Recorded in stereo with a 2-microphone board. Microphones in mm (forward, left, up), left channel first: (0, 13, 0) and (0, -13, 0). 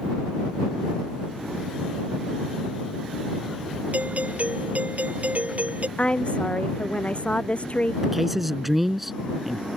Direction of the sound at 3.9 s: 65° right (ahead or behind).